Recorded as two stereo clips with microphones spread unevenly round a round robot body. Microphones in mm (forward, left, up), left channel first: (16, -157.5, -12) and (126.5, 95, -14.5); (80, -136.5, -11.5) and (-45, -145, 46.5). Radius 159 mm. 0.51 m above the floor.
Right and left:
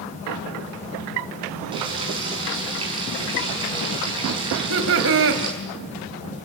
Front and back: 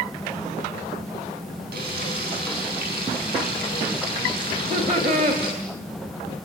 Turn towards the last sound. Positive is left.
turn(degrees=115)